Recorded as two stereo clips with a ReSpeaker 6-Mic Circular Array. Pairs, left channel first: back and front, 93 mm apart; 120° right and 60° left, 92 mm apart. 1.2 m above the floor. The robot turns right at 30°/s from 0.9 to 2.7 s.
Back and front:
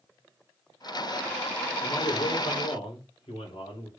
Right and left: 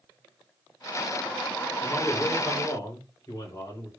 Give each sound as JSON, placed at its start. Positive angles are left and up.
{"t": 1.8, "sound": "a man speaking", "azimuth_deg": 165, "distance_m": 4.0}